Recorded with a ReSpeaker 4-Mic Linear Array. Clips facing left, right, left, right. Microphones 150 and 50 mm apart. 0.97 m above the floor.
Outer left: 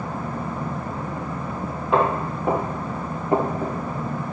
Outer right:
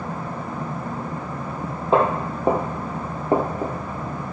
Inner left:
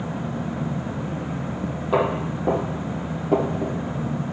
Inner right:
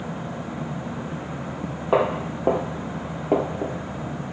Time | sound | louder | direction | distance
1.9 | footsteps | outer right 2 dB, inner right 1 dB | 40° right (ahead or behind) | 2.0 m